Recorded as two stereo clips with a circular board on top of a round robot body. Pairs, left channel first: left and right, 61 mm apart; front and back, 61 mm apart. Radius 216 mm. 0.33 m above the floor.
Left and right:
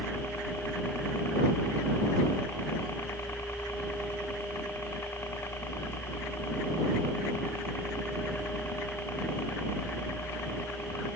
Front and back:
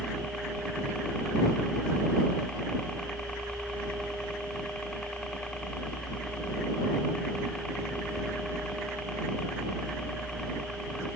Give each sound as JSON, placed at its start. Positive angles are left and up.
{"t": 0.0, "sound": "a helicopter", "azimuth_deg": 70}